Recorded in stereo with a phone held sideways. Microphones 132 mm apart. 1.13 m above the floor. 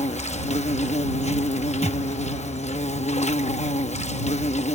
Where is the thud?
50° right (ahead or behind).